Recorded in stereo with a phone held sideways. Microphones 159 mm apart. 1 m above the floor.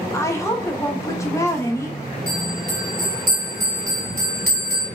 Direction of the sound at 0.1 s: 20° left (ahead or behind).